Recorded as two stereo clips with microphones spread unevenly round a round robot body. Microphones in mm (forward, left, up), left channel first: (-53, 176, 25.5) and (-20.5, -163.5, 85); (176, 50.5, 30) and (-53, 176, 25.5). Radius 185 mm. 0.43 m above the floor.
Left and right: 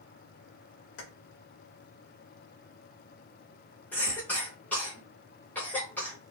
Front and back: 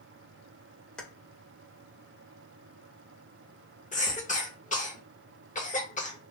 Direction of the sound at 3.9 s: 20° left.